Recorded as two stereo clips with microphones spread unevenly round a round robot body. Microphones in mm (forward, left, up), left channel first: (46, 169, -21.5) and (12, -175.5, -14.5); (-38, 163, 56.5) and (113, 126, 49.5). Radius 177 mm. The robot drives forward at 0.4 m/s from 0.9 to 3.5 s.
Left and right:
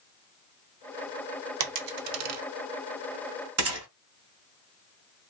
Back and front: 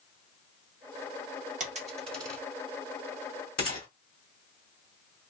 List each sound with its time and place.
1.6 s a dropped coin: 50° right, 0.6 m; by 2.4 s 90° right, 0.5 m
3.6 s a gunshot: 145° right, 1.1 m